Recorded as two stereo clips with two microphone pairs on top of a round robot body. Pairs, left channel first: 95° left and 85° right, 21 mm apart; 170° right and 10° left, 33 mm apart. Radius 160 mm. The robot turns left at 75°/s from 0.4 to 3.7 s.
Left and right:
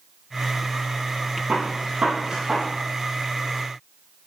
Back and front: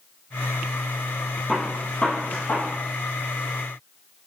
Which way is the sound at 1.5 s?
75° right.